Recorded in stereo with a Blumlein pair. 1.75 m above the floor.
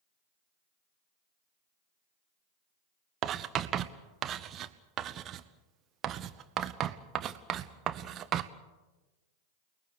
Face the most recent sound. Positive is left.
turn(degrees=-30)